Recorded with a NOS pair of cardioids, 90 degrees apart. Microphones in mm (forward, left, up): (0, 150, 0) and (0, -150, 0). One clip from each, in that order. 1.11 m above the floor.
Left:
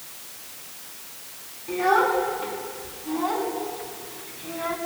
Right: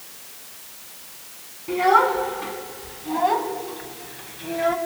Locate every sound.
1.7 s a child speaking: 45° right, 6 m; by 4.8 s 55° right, 4.5 m